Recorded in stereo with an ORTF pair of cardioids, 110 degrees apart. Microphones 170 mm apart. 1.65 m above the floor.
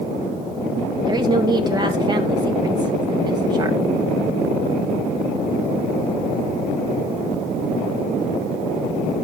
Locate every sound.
1.0 s a woman speaking: 25° right, 2 m